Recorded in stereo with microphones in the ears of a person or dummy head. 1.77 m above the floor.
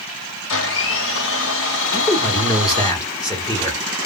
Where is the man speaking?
15° left (ahead or behind), 0.9 m.